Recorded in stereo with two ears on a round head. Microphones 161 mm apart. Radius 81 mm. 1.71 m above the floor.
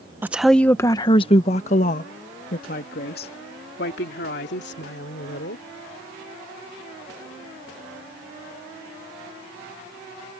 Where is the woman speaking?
10° right (ahead or behind); by 5.6 s 65° left (ahead or behind).